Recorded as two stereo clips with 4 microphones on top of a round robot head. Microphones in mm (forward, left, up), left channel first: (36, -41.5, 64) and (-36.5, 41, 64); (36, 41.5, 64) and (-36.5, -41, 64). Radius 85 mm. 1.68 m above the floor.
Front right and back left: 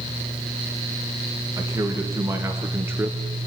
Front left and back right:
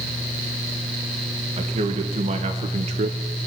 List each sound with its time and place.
1.6 s a man speaking: 165° right, 2.5 m; by 3.2 s 155° right, 1.0 m